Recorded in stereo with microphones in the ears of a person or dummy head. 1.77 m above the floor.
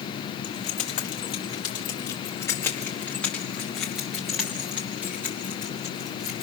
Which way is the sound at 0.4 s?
40° left (ahead or behind).